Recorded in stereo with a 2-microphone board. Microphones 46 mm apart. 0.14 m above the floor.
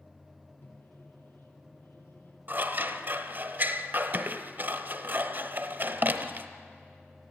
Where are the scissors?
50° right (ahead or behind), 0.9 m.